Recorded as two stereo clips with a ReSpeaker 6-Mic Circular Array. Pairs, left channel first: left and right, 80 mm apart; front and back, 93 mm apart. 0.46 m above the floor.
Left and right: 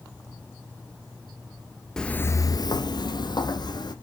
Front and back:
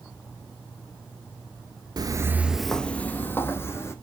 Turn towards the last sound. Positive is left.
turn(degrees=60)